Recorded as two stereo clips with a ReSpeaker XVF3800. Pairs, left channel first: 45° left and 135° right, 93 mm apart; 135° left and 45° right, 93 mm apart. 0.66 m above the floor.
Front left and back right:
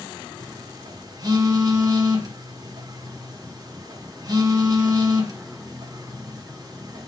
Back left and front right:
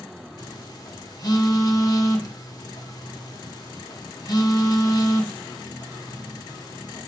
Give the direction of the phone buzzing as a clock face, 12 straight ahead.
6 o'clock.